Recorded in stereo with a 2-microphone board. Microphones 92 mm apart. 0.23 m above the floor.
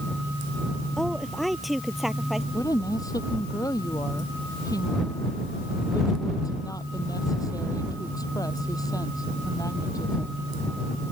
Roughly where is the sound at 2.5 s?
Left.